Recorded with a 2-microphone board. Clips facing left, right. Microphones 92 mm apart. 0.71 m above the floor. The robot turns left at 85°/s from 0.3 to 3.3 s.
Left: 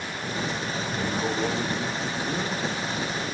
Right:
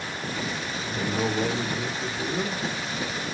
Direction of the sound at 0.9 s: 20° right (ahead or behind).